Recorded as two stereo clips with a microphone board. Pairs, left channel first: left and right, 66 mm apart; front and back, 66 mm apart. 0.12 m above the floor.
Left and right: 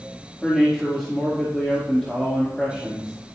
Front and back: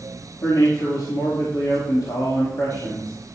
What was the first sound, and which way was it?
A man speaking, 5° left.